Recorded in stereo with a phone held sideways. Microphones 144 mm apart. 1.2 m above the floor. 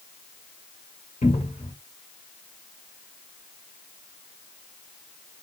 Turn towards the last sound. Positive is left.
turn(degrees=60)  # may be behind; listen again after turning